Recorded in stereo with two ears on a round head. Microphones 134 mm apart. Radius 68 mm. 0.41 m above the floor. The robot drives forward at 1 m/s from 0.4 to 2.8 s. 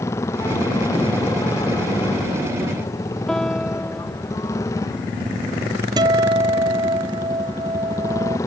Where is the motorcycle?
20° left (ahead or behind).